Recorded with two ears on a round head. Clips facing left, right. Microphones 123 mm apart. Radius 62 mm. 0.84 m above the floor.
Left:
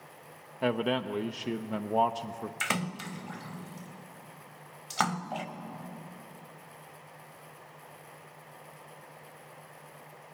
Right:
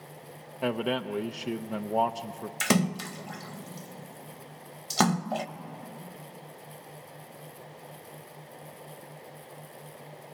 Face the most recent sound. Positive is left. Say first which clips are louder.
# right 10 dB
turn(degrees=-45)  # may be behind; listen again after turning